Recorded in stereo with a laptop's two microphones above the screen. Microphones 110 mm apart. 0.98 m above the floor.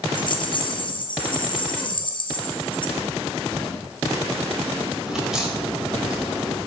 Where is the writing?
30° right (ahead or behind), 2 m.